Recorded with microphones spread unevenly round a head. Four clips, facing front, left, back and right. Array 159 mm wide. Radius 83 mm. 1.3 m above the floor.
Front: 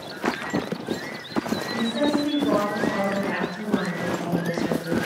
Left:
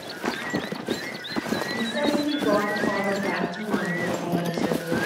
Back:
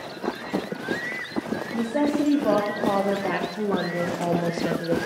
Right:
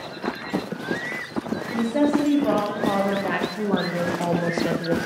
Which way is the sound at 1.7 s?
160° right.